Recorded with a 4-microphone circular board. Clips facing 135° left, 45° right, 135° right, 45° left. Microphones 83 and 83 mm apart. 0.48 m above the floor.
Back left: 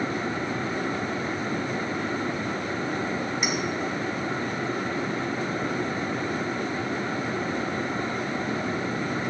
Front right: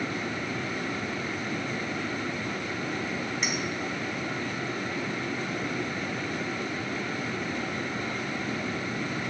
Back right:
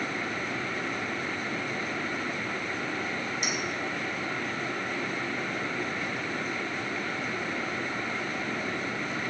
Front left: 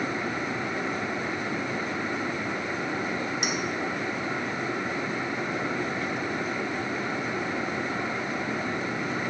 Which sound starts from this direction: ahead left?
A clink, at 3.4 s.